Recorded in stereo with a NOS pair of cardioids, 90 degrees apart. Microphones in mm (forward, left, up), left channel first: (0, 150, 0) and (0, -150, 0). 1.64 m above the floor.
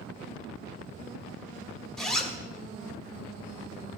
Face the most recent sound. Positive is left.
turn(degrees=0)